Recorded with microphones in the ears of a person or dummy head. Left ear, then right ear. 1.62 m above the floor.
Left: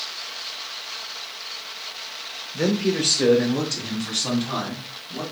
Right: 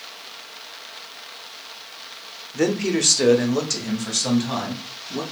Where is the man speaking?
35° right (ahead or behind), 0.7 m; by 5.2 s 85° right, 2.5 m.